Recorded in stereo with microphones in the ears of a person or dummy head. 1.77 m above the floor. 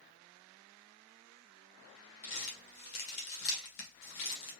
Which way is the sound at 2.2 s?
50° left (ahead or behind).